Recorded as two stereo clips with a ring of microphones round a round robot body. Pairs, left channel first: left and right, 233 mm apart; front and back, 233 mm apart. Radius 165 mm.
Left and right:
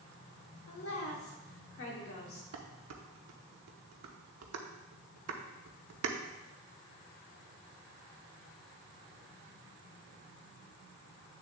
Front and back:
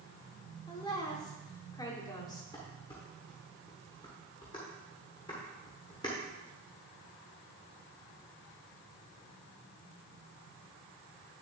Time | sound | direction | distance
0.7 | a woman speaking | 75° left | 2.5 m
2.5 | dishes clattering | 80° right | 0.9 m